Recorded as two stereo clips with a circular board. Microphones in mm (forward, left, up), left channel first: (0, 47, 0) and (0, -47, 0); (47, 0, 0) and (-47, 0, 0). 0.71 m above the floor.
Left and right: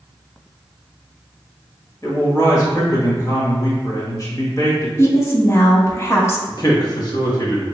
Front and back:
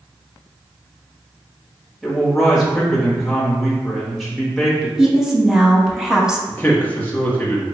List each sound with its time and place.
2.0 s a man speaking: 90° left, 1.3 m
5.0 s a woman speaking: 100° left, 0.7 m
6.5 s a man speaking: 65° left, 1.0 m